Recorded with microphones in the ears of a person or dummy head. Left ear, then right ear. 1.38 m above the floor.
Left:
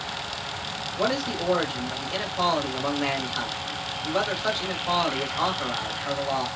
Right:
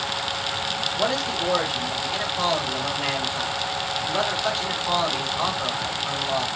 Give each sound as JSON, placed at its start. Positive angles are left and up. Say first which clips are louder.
{"t": 1.0, "sound": "a man speaking", "louder": "left 1 dB", "side_deg": 0, "distance_m": 1.0}